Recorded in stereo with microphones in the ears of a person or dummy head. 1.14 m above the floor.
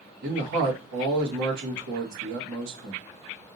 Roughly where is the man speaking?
Right.